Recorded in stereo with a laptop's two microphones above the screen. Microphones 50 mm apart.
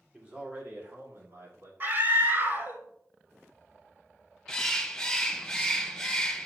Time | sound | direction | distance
0.1 | a man speaking | 15° right (ahead or behind) | 2 m
1.8 | a scream | 40° right (ahead or behind) | 1.7 m
4.5 | a bird | 15° left (ahead or behind) | 0.8 m